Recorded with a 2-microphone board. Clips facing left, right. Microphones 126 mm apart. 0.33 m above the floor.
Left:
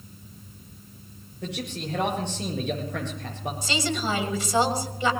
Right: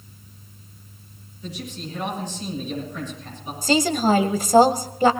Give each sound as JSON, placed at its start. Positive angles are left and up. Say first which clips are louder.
{"t": 1.4, "sound": "a man speaking", "louder": "left 1 dB", "side_deg": 75, "distance_m": 8.0}
{"t": 3.6, "sound": "a woman speaking", "louder": "right 10 dB", "side_deg": -45, "distance_m": 1.7}